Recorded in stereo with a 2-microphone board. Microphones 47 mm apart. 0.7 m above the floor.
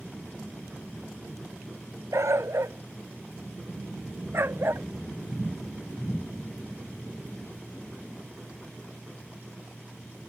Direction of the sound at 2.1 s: 80° right.